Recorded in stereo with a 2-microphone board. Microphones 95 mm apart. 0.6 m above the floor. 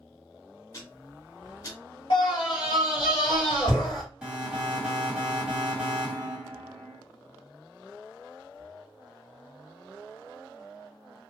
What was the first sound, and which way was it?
Ticking, 40° left (ahead or behind).